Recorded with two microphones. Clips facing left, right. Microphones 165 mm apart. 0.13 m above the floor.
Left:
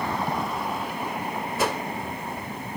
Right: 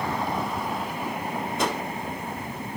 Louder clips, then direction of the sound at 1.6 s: Left 1 dB; 5° left (ahead or behind).